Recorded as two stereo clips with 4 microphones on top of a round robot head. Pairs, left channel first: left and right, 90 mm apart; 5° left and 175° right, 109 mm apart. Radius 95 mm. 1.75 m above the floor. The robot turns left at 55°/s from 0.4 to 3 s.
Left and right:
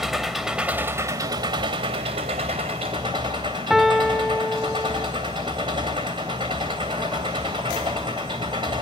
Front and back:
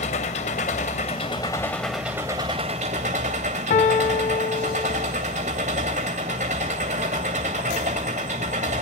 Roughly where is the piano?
Ahead.